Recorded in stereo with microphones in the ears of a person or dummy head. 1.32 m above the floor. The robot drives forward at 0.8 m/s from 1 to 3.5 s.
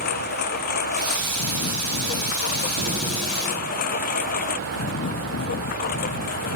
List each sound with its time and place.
0.0 s a lawn mower: 45° left (ahead or behind); by 6.6 s 40° left (ahead or behind)
2.8 s an explosion: 45° right (ahead or behind); by 4.0 s 30° right (ahead or behind)